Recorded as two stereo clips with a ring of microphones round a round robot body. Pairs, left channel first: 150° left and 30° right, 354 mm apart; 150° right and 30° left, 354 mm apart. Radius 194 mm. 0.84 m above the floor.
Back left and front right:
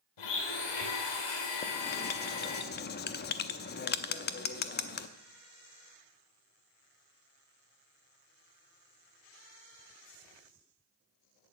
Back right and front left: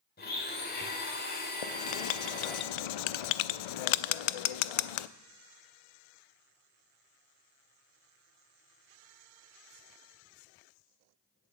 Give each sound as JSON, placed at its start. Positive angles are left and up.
{"t": 0.2, "sound": "a blender", "azimuth_deg": 145, "distance_m": 2.5}
{"t": 1.6, "sound": "writing", "azimuth_deg": -145, "distance_m": 0.6}